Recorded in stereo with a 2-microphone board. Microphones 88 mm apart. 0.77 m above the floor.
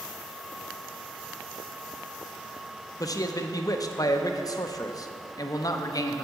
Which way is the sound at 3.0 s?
40° left (ahead or behind).